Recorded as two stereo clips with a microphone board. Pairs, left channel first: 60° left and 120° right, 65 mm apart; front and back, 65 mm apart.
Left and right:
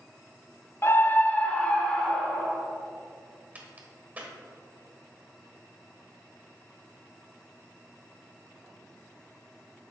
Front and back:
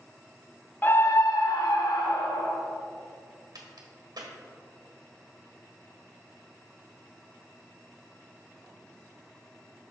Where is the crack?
175° left, 1.6 m.